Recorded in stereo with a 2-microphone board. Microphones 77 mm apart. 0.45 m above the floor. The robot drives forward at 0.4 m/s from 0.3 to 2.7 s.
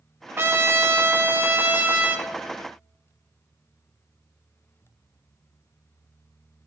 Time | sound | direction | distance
0.4 | a trumpet | 30° right (ahead or behind) | 0.7 m